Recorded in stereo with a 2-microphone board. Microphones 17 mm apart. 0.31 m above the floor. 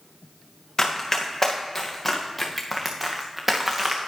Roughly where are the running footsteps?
Left.